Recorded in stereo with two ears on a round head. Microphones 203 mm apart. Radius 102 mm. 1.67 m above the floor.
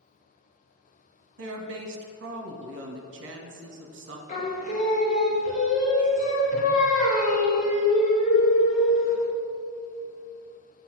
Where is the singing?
35° left (ahead or behind), 1.2 m.